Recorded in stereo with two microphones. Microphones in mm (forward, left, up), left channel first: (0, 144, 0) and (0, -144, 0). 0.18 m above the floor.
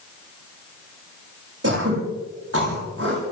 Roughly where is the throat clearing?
Right.